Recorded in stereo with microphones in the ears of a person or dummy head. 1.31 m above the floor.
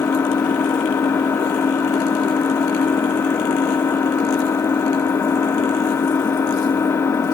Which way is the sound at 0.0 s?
20° left (ahead or behind).